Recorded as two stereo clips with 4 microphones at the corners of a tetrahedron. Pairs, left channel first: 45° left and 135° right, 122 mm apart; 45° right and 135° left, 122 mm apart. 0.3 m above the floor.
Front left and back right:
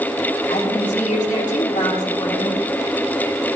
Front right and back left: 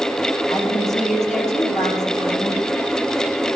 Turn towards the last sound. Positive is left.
turn(degrees=40)